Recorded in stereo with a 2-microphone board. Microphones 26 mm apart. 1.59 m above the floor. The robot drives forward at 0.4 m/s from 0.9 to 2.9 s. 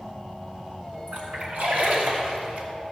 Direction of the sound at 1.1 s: 80° right.